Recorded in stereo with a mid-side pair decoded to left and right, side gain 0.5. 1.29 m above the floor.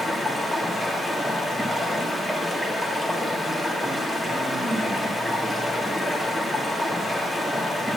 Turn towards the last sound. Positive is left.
turn(degrees=-10)